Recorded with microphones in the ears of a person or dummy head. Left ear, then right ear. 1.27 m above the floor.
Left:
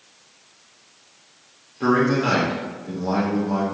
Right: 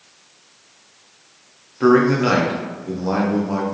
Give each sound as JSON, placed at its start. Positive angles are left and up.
{"t": 1.8, "sound": "a man speaking", "side_deg": -20, "distance_m": 0.5}